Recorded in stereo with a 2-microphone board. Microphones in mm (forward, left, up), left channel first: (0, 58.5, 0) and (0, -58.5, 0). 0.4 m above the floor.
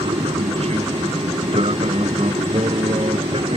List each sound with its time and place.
0.0 s an aircraft: 65° right (ahead or behind); by 3.6 s 55° right (ahead or behind)